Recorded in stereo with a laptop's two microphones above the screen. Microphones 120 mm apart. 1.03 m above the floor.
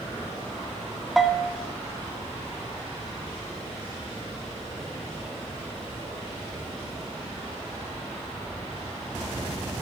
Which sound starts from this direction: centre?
A bell, at 1.2 s.